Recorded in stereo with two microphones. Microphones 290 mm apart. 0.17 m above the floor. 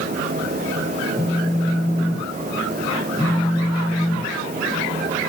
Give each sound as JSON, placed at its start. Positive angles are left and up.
{"t": 1.2, "sound": "a phone buzzing", "side_deg": 15, "distance_m": 3.5}